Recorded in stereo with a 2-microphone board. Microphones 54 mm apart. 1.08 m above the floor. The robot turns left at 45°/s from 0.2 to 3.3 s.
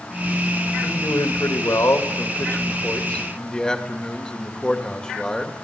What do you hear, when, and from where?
0.8 s a man speaking: 130° left, 2.0 m; by 5.5 s 20° left, 2.0 m